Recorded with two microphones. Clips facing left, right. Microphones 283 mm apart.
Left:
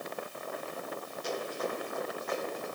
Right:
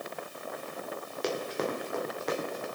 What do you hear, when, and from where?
1.2 s running footsteps: 80° right, 2 m